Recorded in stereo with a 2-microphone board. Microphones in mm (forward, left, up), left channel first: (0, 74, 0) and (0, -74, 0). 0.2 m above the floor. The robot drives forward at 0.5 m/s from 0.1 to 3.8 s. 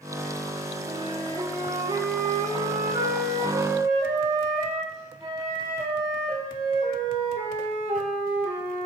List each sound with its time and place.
0.8 s a flute: 30° right (ahead or behind), 3 m; by 8.9 s 20° right (ahead or behind), 4 m